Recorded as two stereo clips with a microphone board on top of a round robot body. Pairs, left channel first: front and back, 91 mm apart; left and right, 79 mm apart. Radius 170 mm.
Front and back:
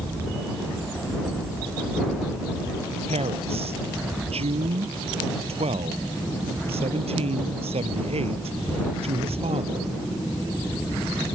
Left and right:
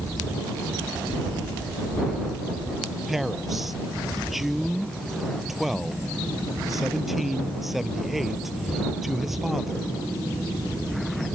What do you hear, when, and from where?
3.1 s a man speaking: straight behind